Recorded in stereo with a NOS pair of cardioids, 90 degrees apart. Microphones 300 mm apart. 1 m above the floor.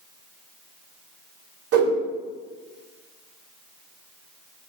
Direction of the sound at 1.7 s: 50° right.